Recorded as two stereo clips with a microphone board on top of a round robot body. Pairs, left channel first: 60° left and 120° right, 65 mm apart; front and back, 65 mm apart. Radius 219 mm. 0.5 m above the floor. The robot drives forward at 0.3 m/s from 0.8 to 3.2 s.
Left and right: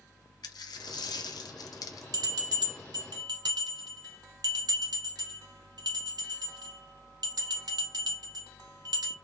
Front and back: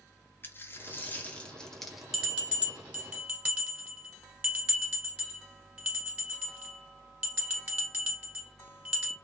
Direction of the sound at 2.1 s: 105° right.